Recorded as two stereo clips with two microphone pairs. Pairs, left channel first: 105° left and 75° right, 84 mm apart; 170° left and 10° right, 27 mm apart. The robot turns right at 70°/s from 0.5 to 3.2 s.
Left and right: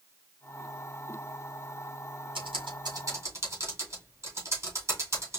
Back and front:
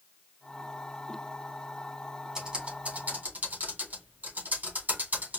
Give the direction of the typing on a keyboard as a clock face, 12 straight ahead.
3 o'clock.